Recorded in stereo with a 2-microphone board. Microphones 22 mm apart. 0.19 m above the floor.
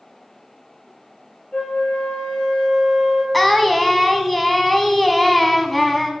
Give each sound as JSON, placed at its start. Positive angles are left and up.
{"t": 1.5, "sound": "a flute", "side_deg": 40, "distance_m": 3.0}
{"t": 3.3, "sound": "singing", "side_deg": 5, "distance_m": 0.9}